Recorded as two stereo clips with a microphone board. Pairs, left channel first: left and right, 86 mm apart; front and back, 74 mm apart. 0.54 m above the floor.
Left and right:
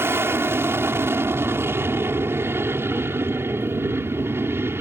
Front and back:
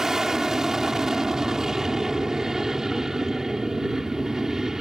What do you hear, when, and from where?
0.0 s an aircraft: 105° right